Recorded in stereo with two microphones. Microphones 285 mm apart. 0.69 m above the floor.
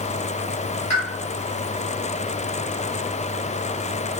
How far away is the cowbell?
No cowbell in this recording.